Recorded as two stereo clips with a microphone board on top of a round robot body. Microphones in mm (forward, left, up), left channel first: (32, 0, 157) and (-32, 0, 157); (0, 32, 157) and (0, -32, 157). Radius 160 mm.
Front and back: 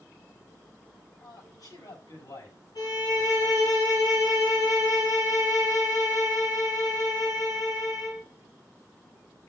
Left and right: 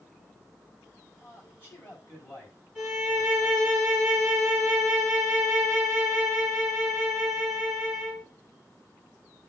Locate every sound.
1.2 s a man speaking: 20° left, 5 m
2.8 s a violin: 5° left, 4 m